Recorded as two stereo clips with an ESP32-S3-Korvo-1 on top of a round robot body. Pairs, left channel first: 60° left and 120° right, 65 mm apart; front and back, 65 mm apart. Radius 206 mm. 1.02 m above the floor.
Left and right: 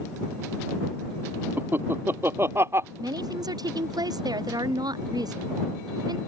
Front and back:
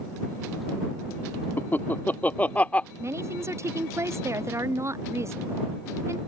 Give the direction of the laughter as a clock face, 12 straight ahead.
2 o'clock.